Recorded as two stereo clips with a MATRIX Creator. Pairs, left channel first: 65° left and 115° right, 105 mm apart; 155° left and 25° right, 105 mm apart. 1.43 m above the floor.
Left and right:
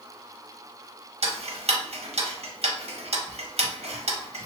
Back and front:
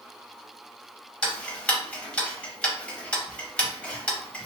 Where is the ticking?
125° right, 0.6 m.